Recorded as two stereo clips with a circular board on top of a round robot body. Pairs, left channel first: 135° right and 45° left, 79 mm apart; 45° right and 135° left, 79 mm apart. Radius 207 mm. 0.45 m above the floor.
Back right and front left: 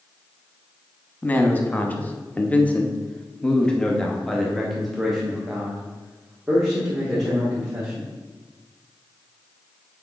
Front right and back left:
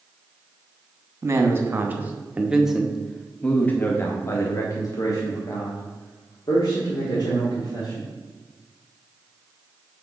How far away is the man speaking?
About 1.5 m.